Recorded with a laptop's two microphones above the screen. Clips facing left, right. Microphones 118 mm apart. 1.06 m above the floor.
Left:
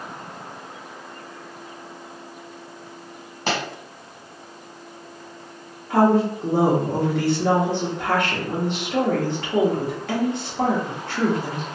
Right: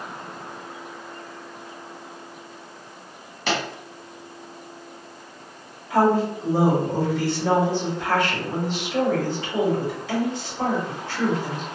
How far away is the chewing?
I don't hear chewing.